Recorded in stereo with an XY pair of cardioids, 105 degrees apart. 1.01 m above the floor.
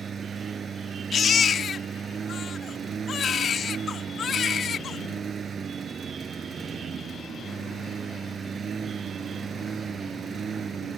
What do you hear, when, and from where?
0.0 s a lawn mower: 45° right
1.1 s a baby crying: 50° left